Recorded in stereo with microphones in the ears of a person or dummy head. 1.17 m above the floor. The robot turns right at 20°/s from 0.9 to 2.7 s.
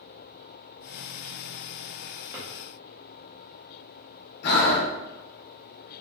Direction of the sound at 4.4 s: 55° left (ahead or behind).